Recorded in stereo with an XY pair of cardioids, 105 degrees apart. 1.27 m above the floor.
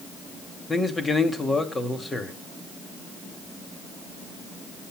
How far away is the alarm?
No alarm in this recording.